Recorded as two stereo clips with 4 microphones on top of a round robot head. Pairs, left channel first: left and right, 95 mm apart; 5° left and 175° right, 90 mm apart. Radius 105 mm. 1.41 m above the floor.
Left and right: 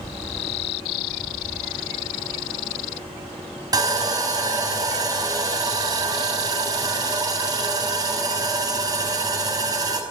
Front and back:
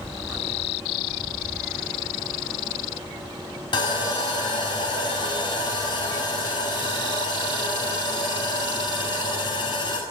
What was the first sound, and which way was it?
Sawing, 40° right.